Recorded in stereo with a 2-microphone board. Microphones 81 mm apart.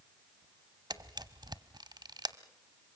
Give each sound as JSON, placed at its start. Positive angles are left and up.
{"t": 0.9, "sound": "a camera shutter", "side_deg": -55, "distance_m": 0.9}